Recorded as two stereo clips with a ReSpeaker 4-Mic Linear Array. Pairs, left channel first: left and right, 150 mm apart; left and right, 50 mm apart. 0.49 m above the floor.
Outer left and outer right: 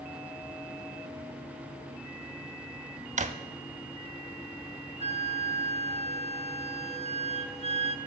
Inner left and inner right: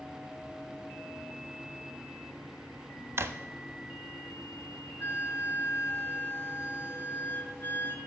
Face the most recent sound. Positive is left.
turn(degrees=40)  # may be behind; listen again after turning